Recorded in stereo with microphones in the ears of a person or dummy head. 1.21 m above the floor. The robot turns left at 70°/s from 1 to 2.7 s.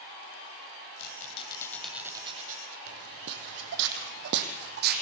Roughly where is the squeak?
Ahead left.